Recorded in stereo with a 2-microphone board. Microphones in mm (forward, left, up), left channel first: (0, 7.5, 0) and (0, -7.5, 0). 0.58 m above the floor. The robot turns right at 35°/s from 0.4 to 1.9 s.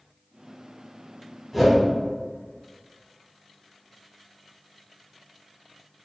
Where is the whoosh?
15° right (ahead or behind), 1.7 m; by 1.8 s 25° right (ahead or behind), 1.7 m.